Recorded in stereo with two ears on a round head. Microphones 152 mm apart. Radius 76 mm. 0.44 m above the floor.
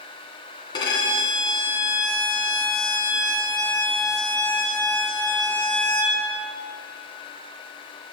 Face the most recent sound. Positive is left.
turn(degrees=25)  # may be behind; listen again after turning